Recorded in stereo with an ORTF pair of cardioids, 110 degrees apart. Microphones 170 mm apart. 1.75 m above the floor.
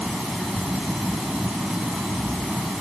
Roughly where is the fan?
Ahead.